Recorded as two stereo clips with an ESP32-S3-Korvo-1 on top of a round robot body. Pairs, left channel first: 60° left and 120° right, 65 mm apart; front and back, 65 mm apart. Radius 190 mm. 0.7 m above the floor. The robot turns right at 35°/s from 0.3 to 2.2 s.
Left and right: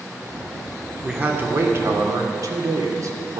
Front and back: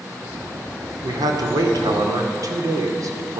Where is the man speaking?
165° left, 2 m; by 3.4 s 155° right, 2 m.